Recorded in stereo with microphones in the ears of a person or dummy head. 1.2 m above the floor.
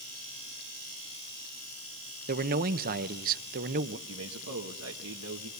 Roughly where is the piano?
I don't hear a piano.